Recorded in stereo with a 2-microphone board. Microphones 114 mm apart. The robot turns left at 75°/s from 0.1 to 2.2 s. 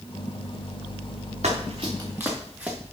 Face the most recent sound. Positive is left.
turn(degrees=-10)  # may be behind; listen again after turning